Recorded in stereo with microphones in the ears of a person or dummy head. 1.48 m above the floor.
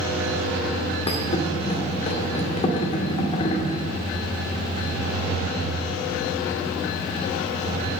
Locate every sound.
1.1 s a thud: 35° left (ahead or behind), 2 m